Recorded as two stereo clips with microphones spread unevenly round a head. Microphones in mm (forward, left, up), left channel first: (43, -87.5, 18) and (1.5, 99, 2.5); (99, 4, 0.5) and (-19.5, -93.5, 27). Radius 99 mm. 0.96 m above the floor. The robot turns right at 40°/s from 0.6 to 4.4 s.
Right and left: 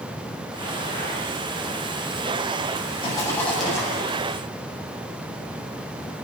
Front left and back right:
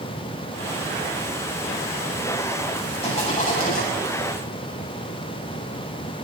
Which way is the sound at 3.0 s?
15° right.